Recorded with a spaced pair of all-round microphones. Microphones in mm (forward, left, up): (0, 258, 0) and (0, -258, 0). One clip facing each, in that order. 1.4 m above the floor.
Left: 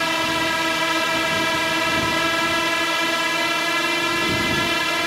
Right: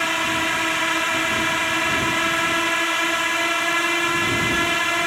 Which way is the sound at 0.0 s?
60° left (ahead or behind).